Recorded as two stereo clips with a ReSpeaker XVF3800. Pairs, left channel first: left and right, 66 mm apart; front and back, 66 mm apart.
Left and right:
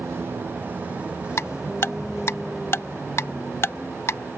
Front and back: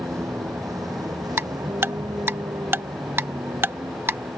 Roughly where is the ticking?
Behind left.